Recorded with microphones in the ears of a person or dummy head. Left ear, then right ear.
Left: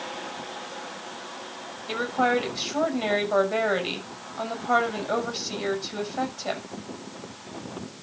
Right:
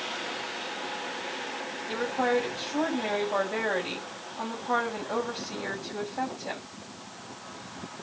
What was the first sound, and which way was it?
A woman speaking, 60° left (ahead or behind).